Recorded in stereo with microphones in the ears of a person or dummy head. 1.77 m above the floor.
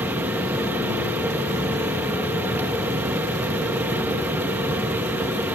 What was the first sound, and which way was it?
A fan, centre (ahead or behind).